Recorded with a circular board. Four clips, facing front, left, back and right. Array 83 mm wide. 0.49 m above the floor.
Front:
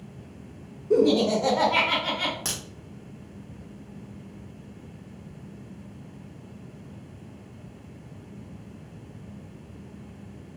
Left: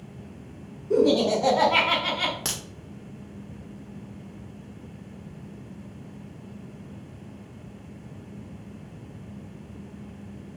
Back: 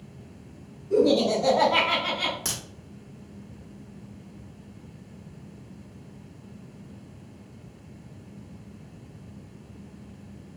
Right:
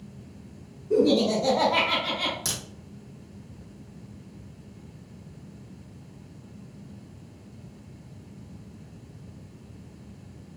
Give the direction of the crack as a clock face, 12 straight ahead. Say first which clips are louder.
Left 1 dB, even; 9 o'clock.